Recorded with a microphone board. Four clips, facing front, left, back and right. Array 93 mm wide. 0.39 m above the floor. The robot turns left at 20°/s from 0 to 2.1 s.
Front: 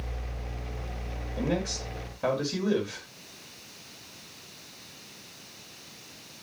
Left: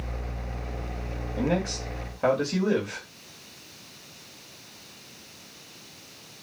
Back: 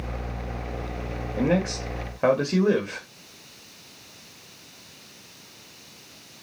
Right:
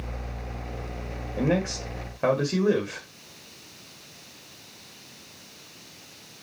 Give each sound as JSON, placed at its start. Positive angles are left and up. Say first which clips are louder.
{"t": 1.4, "sound": "a man speaking", "louder": "right 2 dB, back 6 dB", "azimuth_deg": -150, "distance_m": 1.7}